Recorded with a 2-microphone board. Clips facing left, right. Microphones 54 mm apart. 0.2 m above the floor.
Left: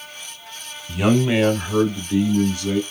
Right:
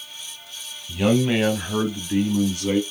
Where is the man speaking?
20° left (ahead or behind), 1.4 m; by 2.8 s 30° right (ahead or behind), 1.7 m.